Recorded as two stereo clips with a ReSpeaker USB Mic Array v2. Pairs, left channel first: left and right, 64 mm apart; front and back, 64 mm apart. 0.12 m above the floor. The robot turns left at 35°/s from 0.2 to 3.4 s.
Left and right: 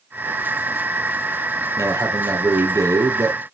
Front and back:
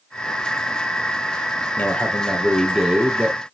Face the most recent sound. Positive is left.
turn(degrees=-120)